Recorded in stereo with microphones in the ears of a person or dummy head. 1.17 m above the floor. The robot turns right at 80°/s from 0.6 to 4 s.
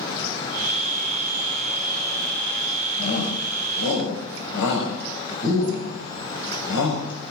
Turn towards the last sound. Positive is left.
turn(degrees=60)  # may be behind; listen again after turning